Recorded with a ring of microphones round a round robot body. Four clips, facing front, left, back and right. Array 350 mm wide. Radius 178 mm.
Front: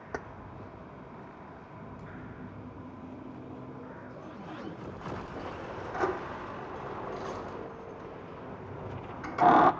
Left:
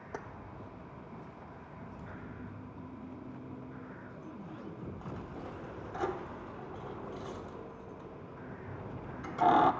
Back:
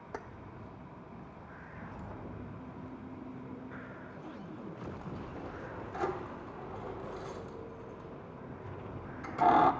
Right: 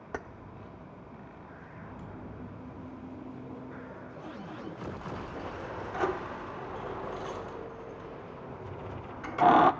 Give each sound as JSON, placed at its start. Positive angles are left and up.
{"t": 0.1, "sound": "keys jangling", "azimuth_deg": -45, "distance_m": 0.9}